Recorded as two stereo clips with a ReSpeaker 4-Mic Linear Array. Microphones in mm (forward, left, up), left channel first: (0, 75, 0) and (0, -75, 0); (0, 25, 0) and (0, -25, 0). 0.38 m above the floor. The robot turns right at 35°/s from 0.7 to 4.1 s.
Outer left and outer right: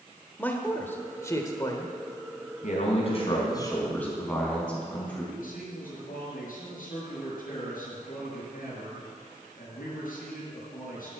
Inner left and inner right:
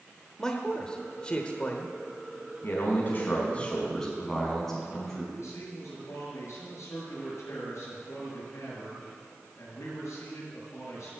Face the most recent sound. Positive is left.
turn(degrees=70)  # may be behind; listen again after turning